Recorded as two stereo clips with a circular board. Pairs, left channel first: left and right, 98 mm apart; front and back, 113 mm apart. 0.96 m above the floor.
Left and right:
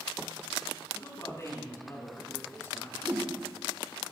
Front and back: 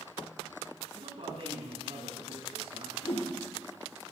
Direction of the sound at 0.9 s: 145° left.